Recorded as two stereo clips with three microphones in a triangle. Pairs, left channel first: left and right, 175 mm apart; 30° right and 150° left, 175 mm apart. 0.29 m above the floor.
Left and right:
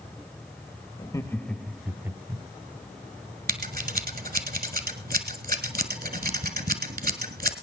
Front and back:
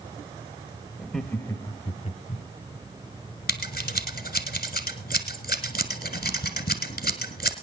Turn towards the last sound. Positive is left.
turn(degrees=-60)